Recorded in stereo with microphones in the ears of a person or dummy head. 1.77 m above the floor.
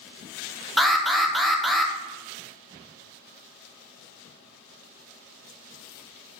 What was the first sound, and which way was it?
An alarm, centre (ahead or behind).